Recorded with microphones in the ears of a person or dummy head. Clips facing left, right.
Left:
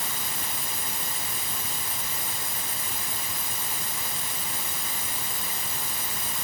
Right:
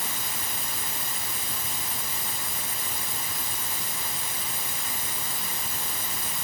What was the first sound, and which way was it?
Only background noise.